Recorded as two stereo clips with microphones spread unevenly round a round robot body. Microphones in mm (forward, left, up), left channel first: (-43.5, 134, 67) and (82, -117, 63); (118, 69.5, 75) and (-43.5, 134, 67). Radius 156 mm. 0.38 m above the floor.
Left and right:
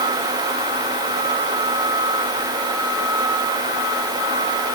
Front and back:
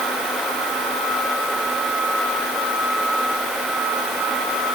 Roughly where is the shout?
No shout in this recording.